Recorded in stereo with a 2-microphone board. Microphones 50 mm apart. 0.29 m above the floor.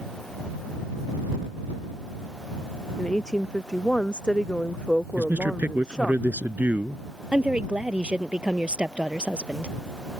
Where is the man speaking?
35° right (ahead or behind).